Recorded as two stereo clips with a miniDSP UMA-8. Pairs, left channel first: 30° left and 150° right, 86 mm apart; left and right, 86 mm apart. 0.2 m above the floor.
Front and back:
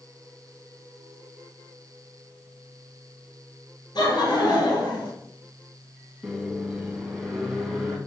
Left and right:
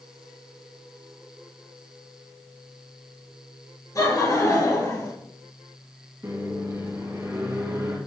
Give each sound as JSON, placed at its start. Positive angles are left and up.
{"t": 4.0, "sound": "laughter", "azimuth_deg": 50, "distance_m": 2.5}
{"t": 6.2, "sound": "a microwave", "azimuth_deg": -65, "distance_m": 1.7}